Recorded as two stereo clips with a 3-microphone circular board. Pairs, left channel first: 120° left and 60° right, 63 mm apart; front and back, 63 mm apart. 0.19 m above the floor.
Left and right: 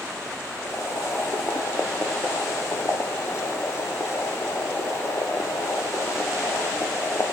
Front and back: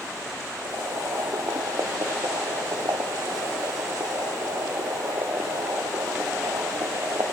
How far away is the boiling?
About 1.2 m.